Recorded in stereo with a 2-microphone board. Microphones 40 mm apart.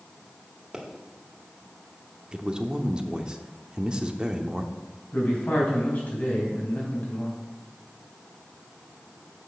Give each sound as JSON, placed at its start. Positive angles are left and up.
{"t": 0.7, "sound": "a pop", "side_deg": -15, "distance_m": 1.7}
{"t": 2.3, "sound": "a man speaking", "side_deg": -25, "distance_m": 0.8}
{"t": 5.1, "sound": "a man speaking", "side_deg": 45, "distance_m": 4.0}